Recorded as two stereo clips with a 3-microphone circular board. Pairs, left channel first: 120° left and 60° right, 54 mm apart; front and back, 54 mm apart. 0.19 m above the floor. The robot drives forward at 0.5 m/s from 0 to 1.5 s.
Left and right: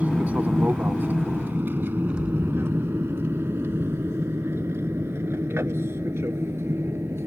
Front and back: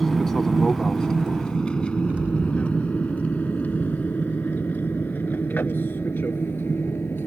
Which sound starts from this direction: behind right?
An explosion, at 2.1 s.